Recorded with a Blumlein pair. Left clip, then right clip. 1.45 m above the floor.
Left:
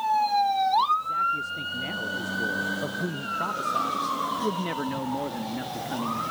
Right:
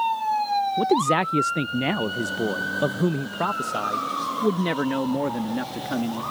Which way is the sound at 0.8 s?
50° right.